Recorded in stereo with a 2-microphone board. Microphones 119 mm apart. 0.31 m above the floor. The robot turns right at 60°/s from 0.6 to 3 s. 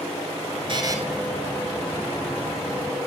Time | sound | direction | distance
0.7 | a buzzer | 45° right (ahead or behind) | 0.8 m